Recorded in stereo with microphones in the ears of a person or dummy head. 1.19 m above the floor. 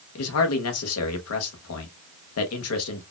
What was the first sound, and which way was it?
A man speaking, 80° left.